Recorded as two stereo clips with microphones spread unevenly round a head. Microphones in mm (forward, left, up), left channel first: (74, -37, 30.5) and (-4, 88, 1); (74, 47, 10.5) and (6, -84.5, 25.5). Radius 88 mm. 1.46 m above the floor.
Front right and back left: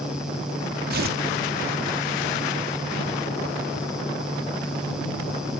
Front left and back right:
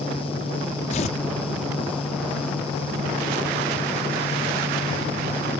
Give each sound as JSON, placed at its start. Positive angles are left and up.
{"t": 0.9, "sound": "tearing paper", "azimuth_deg": 115}